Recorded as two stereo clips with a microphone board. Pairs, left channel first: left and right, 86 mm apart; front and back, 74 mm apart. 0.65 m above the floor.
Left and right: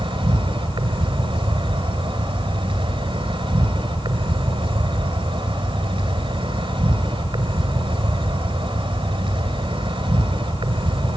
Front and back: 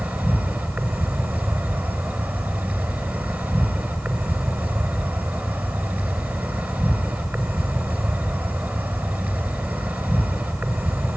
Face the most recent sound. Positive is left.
turn(degrees=-115)